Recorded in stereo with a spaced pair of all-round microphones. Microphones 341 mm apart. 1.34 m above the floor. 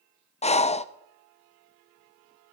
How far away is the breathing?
About 0.5 m.